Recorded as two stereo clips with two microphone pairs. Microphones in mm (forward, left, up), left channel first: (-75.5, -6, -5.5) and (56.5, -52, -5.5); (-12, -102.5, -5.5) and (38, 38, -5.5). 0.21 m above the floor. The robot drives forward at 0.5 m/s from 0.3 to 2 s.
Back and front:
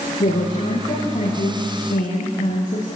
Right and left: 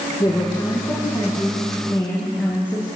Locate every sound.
0.2 s a woman speaking: 165° right, 8.5 m